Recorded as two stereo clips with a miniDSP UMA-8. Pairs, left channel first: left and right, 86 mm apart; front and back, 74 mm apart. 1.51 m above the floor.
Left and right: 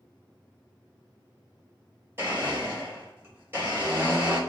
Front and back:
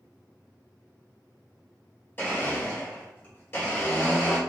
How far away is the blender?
About 1.5 m.